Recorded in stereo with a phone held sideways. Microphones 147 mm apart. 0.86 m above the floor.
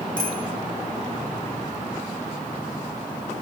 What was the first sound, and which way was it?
A bicycle bell, 65° left (ahead or behind).